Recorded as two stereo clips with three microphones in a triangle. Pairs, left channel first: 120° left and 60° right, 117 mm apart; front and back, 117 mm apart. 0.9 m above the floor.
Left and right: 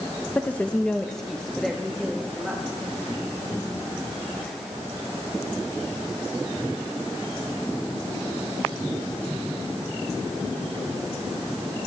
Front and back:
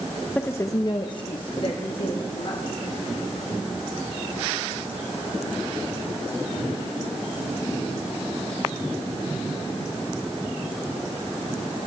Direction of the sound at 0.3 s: 60° left.